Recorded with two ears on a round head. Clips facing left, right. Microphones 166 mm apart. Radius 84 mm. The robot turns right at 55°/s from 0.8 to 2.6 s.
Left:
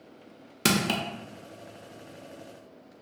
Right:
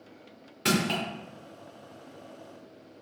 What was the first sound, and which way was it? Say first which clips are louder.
Crushing: left 1 dB; 55° left (ahead or behind).